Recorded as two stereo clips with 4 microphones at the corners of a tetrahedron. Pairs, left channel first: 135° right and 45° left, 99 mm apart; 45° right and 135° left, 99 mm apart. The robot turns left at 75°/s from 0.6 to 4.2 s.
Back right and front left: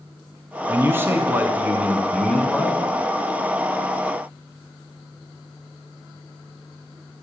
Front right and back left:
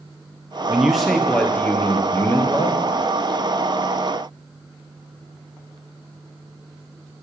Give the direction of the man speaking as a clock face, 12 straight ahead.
10 o'clock.